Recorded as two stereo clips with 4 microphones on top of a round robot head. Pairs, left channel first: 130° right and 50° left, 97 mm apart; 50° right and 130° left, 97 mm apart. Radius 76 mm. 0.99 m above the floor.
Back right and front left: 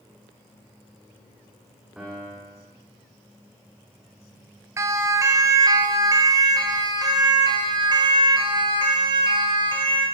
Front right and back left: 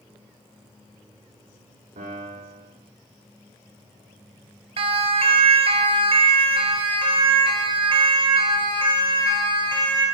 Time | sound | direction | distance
2.0 | a piano | 130° left | 8 m
4.8 | a siren | 110° left | 3 m